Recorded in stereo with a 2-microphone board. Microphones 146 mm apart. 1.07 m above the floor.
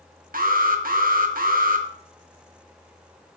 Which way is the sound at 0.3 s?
75° right (ahead or behind).